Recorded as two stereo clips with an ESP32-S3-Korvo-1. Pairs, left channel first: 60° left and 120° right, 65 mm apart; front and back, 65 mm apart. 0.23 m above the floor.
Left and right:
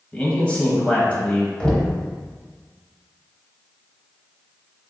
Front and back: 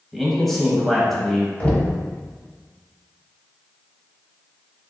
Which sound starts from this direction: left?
A man speaking, at 0.1 s.